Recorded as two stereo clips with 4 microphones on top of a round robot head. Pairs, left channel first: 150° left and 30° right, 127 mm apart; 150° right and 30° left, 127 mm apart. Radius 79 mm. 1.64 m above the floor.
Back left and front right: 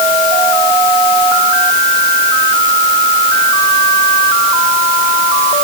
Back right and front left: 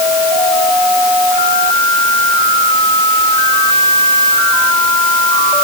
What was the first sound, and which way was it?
Only background noise.